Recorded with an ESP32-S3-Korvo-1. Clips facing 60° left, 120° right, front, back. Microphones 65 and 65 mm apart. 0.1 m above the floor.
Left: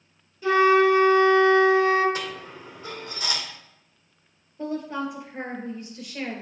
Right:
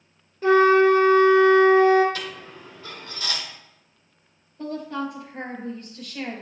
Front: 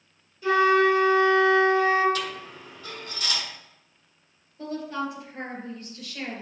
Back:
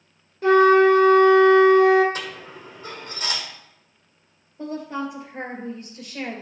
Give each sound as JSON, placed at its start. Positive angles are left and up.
{"t": 0.4, "sound": "a flute", "azimuth_deg": -155, "distance_m": 1.6}
{"t": 2.1, "sound": "a dropped coin", "azimuth_deg": 120, "distance_m": 1.7}
{"t": 4.6, "sound": "a woman speaking", "azimuth_deg": 120, "distance_m": 2.0}